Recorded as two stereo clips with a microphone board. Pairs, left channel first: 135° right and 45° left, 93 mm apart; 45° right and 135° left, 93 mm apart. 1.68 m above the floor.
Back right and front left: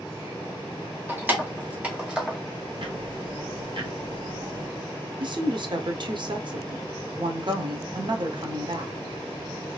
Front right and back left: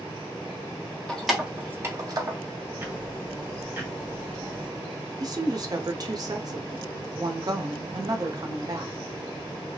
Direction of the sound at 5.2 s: 85° left.